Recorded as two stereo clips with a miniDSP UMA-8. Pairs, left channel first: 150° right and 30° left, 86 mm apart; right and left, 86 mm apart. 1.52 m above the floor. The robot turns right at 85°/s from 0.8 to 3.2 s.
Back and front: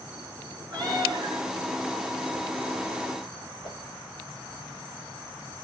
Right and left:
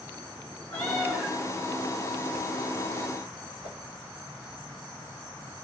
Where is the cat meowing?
15° right, 6.5 m; by 1.4 s 35° left, 6.5 m.